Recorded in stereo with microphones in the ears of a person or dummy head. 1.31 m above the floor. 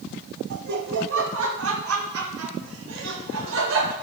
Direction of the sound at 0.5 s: 55° right (ahead or behind).